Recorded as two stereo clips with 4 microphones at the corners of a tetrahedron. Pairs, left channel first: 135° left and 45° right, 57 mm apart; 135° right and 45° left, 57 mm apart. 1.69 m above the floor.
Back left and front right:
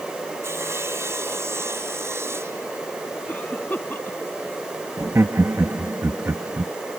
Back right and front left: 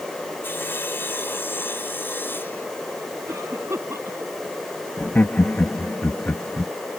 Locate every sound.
0.4 s sawing: 85° right
3.3 s a cough: 75° left
5.0 s laughter: 80° right